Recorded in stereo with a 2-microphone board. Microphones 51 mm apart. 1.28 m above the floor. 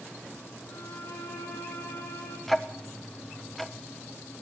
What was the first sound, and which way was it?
A violin, 55° left (ahead or behind).